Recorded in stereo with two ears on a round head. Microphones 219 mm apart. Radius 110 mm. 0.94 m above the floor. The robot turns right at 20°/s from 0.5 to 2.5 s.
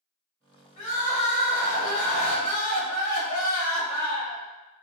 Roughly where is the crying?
Left.